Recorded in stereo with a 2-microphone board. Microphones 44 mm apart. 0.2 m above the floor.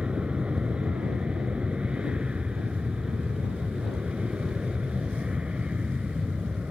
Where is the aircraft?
25° right (ahead or behind).